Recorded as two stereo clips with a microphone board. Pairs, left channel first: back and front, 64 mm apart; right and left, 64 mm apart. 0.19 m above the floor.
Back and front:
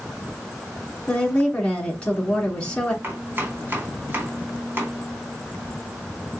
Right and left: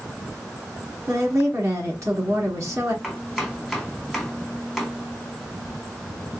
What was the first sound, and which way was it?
A woman speaking, 110° left.